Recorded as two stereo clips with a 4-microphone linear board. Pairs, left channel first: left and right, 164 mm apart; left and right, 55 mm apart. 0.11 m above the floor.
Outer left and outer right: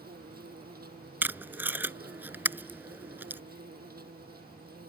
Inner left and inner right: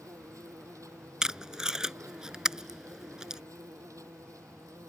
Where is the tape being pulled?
10° right (ahead or behind).